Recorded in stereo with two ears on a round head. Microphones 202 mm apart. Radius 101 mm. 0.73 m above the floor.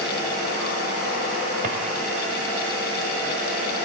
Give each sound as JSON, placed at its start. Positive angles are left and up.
{"t": 1.6, "sound": "a drawer", "side_deg": -35, "distance_m": 1.6}